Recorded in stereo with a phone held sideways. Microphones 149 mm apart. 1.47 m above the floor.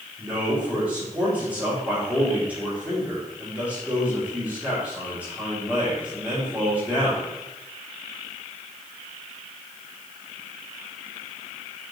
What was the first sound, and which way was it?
A man speaking, 10° right (ahead or behind).